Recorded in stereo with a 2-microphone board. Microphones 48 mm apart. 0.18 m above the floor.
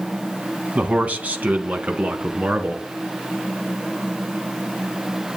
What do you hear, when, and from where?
0.8 s a man speaking: 30° right (ahead or behind), 1.8 m; by 2.8 s 35° right (ahead or behind), 2.5 m